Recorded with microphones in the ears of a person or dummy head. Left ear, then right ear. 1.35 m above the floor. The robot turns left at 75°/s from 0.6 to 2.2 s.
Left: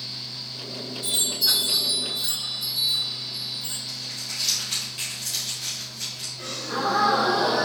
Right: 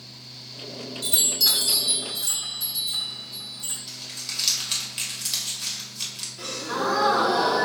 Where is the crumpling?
30° right (ahead or behind), 1.5 m.